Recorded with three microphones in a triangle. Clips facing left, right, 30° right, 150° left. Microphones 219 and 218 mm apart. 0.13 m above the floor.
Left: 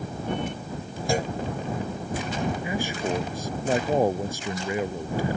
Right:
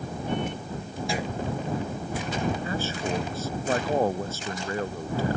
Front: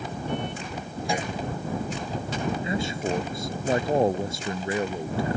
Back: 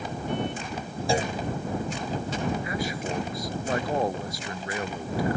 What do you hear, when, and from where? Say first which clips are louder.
1.1 s a clunk: left 5 dB, back 4 dB; 105° left
2.6 s a man speaking: left 2 dB, front 3 dB; 20° left